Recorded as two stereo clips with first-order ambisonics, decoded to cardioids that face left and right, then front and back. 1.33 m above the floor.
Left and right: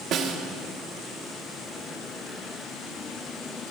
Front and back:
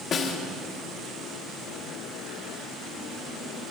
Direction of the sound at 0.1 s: 50° right.